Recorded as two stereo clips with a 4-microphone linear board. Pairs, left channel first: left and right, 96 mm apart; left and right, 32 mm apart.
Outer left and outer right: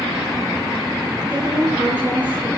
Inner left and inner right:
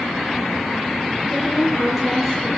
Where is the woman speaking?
15° right (ahead or behind), 5.5 m.